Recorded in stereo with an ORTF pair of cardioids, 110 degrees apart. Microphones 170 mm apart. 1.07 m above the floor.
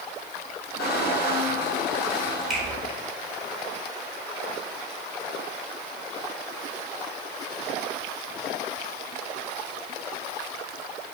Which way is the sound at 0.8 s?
65° left.